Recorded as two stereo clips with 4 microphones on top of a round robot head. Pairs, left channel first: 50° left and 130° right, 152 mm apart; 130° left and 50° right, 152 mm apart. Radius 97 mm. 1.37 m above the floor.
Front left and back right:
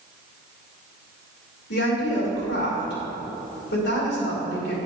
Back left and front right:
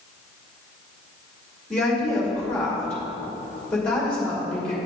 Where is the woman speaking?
50° left, 2.5 m.